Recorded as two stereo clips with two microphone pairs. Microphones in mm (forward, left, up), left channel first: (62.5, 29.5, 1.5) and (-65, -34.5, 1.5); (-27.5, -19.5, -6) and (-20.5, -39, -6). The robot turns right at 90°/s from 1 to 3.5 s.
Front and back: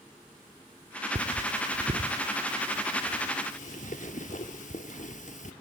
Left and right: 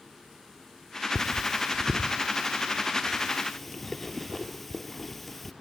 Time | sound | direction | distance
1.1 | cutlery clinking | 175° left | 1.4 m